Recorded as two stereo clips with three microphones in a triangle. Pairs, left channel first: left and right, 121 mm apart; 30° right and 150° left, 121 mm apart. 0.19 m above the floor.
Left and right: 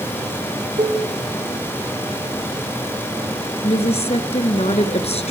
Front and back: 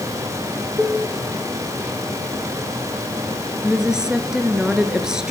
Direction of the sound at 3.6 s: 65° left.